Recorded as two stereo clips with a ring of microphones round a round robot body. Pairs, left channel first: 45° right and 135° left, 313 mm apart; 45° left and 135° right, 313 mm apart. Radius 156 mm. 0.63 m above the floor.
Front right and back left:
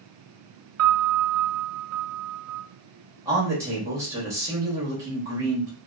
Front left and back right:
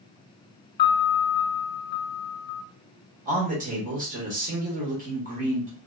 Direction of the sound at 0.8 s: 100° left.